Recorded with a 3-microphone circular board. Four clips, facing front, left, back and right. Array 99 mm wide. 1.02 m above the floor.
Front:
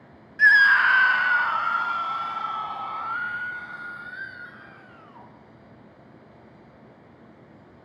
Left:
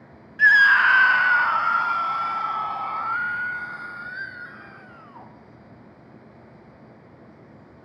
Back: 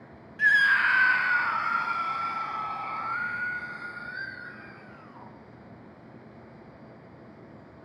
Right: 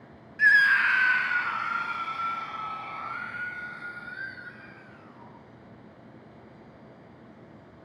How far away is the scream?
About 0.7 m.